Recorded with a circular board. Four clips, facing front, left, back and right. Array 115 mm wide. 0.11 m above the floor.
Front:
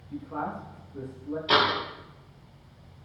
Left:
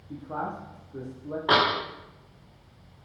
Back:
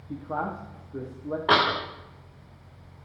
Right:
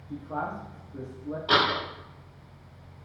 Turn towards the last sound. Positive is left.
turn(degrees=150)